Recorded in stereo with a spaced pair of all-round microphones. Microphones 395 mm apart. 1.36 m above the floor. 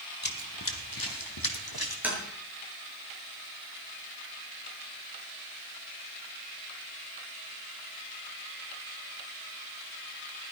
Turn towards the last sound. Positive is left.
turn(degrees=-5)  # may be behind; listen again after turning